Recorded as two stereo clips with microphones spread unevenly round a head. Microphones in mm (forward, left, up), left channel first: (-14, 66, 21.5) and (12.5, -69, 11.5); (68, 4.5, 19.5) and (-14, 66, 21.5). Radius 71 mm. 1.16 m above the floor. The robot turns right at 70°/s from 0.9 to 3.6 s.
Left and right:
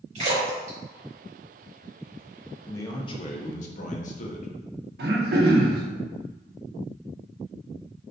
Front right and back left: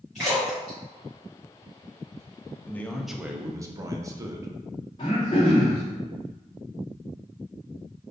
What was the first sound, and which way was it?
A splash, 125° right.